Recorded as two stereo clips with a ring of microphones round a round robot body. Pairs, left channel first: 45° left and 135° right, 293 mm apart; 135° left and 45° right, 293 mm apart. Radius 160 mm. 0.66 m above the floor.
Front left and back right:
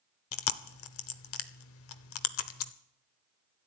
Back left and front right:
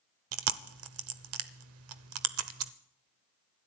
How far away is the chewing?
About 0.8 m.